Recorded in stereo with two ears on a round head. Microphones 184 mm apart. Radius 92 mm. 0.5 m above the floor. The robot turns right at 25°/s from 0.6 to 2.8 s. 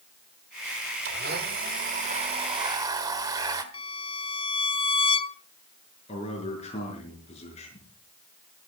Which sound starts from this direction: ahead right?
A blender, at 1.1 s.